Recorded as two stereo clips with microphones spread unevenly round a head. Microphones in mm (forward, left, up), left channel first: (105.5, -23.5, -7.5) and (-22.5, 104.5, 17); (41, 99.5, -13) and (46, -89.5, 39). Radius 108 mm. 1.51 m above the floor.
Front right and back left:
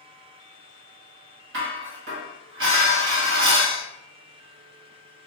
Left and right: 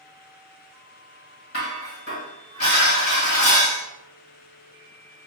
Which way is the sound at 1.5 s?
140° left.